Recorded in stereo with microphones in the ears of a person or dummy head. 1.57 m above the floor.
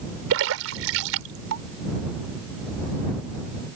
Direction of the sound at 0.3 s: 75° right (ahead or behind).